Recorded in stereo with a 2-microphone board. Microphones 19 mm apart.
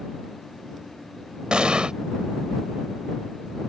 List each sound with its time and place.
1.5 s an explosion: 60° right (ahead or behind)